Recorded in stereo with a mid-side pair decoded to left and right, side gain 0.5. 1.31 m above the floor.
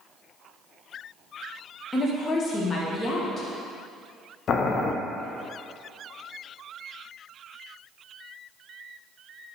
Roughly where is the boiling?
Ahead left.